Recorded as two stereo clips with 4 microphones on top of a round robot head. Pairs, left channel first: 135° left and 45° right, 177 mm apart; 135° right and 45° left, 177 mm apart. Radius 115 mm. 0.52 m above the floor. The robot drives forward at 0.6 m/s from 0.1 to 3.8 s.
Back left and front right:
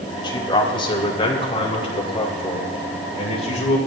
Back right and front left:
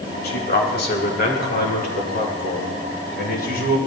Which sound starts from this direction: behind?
A man speaking, at 0.2 s.